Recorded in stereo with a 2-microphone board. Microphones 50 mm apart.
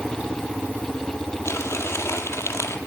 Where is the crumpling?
65° left (ahead or behind), 1.5 m.